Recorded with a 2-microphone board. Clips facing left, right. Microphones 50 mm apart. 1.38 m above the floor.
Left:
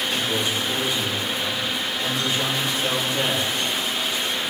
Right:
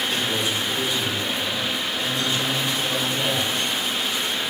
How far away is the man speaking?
About 5 m.